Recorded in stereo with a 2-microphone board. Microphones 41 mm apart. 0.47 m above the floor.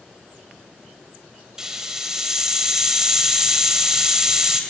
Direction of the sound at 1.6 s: 15° right (ahead or behind).